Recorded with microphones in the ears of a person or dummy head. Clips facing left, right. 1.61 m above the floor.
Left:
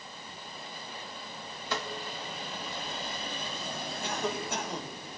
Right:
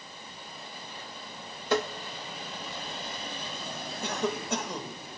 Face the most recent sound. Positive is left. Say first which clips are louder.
# right 3 dB
turn(degrees=-85)